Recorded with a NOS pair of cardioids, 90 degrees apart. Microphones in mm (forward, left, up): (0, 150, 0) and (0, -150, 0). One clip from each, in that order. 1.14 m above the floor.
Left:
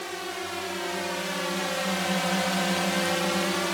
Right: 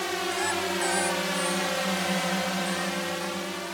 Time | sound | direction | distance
0.0 | a drone | 40° right | ?